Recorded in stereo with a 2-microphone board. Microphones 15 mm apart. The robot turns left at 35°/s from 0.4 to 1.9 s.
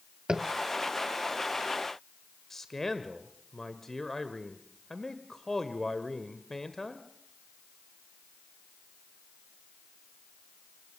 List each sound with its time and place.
0.3 s tapping: 40° right (ahead or behind), 1.2 m; by 0.5 s 45° right (ahead or behind), 1.2 m
2.5 s a man speaking: 30° left (ahead or behind), 1.2 m